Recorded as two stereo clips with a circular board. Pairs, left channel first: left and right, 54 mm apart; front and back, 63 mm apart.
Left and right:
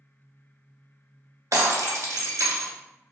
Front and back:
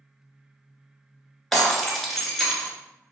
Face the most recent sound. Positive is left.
turn(degrees=-90)